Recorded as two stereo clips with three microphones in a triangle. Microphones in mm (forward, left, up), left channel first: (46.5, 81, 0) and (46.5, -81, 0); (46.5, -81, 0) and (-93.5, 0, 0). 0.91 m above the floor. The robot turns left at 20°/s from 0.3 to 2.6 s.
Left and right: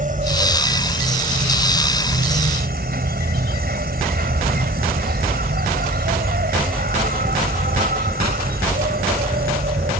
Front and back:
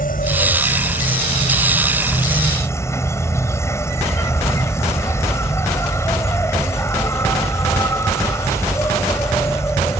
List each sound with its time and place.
0.0 s an insect: 55° right; by 10.0 s 100° right